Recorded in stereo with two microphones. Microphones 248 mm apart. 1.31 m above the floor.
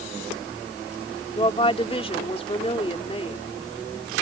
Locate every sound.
1.3 s a woman speaking: 25° left (ahead or behind)